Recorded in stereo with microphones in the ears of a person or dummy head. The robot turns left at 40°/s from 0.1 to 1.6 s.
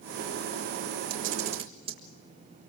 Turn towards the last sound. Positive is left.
turn(degrees=-25)  # may be behind; listen again after turning